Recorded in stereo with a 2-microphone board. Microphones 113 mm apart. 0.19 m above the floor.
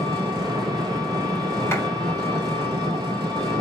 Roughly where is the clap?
Left.